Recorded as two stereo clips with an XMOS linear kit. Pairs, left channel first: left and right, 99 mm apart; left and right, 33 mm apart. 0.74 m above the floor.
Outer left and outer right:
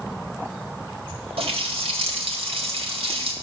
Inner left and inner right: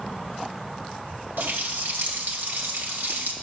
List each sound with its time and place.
1.4 s a running tap: 80° right, 2 m